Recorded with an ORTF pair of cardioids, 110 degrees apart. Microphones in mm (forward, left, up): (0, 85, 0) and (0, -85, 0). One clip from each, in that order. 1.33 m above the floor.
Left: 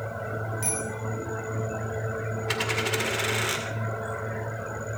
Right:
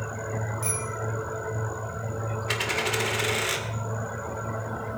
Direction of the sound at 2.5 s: 5° right.